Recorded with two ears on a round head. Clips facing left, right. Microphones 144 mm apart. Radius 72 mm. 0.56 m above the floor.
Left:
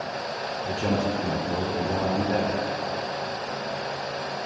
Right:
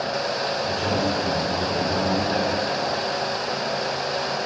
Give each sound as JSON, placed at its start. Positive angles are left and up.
{"t": 0.7, "sound": "a man speaking", "side_deg": 20, "distance_m": 1.7}